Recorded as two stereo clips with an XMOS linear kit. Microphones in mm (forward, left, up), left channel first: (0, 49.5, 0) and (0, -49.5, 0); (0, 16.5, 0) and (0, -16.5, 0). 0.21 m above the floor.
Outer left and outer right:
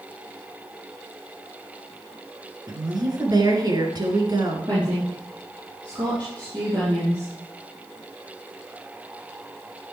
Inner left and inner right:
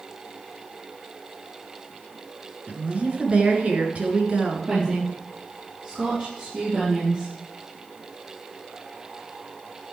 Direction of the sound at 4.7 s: 45° right (ahead or behind).